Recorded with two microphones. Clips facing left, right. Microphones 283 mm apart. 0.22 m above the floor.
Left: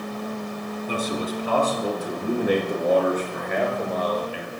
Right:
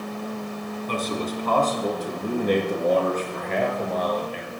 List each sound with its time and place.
0.9 s a man speaking: 10° left (ahead or behind), 1.7 m